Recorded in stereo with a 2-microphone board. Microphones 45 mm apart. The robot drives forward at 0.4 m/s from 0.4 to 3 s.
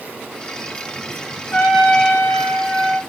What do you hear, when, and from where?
1.5 s a trumpet: 40° left (ahead or behind), 2.5 m; by 3.0 s 35° left (ahead or behind), 2.5 m